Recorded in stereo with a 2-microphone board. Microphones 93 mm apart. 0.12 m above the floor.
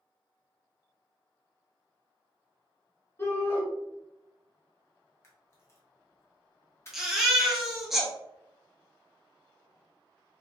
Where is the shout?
30° left (ahead or behind), 1.2 m.